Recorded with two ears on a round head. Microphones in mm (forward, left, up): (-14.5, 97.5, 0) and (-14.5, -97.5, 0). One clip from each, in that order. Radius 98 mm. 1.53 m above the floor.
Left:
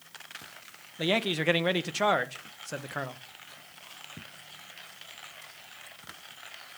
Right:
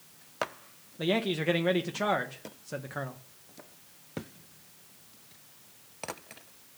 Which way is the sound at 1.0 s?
35° left (ahead or behind).